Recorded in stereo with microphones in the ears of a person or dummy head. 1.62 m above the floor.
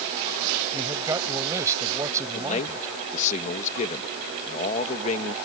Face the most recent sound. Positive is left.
turn(degrees=40)  # may be behind; listen again after turning